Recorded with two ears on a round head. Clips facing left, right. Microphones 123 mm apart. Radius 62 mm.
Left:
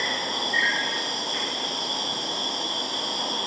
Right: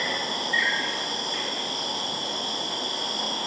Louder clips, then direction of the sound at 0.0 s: Even; 45° right (ahead or behind).